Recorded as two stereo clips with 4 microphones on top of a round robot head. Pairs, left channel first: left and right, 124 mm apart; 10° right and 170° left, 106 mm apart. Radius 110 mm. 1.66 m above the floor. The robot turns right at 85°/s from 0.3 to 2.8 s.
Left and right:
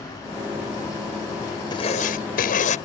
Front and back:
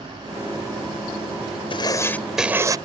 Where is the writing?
25° left; by 2.8 s 115° left.